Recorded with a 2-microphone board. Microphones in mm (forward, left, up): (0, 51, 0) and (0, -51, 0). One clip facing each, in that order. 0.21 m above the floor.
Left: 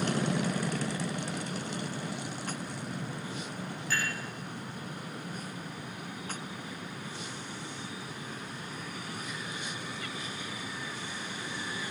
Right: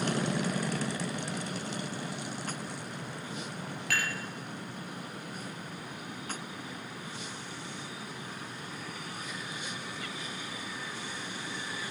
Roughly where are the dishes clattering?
Right.